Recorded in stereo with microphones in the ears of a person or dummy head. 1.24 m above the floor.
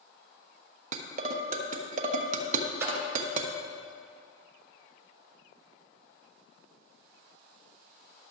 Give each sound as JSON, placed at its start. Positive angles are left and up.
{"t": 0.9, "sound": "dishes clattering", "side_deg": -50, "distance_m": 1.0}
{"t": 2.8, "sound": "a splash", "side_deg": -15, "distance_m": 3.0}